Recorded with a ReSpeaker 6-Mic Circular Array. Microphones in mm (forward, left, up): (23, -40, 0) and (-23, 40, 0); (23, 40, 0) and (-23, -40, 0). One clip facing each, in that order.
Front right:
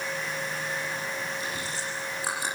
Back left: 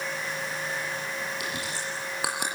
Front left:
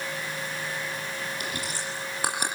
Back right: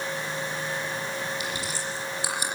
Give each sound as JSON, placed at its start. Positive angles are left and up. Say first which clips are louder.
{"t": 1.4, "sound": "chewing", "louder": "even, back right 1 dB", "azimuth_deg": 100, "distance_m": 10.0}